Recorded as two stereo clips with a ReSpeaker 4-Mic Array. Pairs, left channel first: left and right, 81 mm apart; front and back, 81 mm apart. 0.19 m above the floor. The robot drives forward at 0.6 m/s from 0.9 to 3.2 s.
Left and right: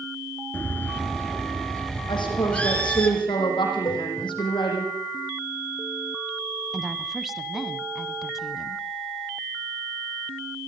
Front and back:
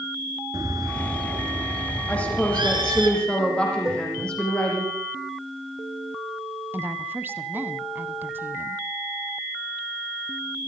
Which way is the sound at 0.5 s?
155° left.